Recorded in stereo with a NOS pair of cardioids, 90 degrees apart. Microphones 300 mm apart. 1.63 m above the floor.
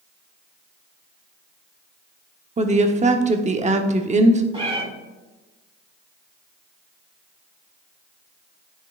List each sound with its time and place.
2.6 s a woman speaking: 25° right, 1.0 m
4.5 s a cat meowing: 20° right, 3 m